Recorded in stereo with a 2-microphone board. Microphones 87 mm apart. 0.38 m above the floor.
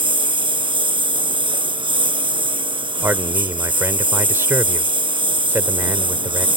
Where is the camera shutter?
I don't hear a camera shutter.